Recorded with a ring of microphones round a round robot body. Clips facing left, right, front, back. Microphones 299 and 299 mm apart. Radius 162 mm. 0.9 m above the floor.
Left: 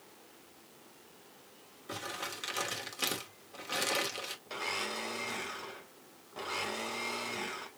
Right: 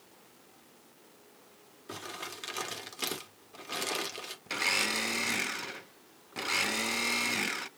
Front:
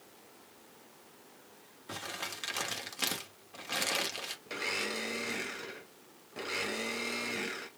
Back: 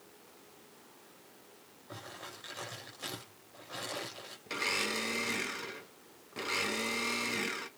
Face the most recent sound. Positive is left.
turn(degrees=-105)